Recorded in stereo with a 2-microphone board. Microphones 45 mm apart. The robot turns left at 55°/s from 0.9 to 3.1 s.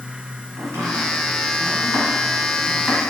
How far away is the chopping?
About 1.1 m.